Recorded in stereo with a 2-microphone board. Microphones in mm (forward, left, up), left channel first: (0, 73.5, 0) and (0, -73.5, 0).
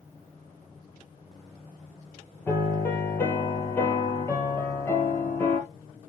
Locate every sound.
2.5 s a piano: 15° left (ahead or behind), 2.0 m